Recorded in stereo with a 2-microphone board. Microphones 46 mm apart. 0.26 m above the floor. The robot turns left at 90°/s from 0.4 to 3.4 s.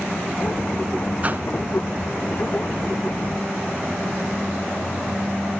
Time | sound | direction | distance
1.2 | a whoosh | 30° right (ahead or behind) | 0.5 m